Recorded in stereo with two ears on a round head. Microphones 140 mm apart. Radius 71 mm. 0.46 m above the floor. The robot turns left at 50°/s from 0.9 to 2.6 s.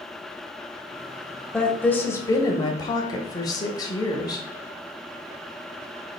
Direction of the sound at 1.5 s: 5° left (ahead or behind).